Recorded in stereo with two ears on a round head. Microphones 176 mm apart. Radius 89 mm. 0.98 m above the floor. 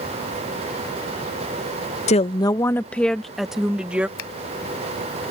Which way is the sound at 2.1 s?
35° left (ahead or behind).